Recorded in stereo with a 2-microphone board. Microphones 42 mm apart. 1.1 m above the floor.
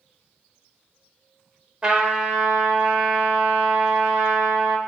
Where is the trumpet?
20° right (ahead or behind), 0.8 m.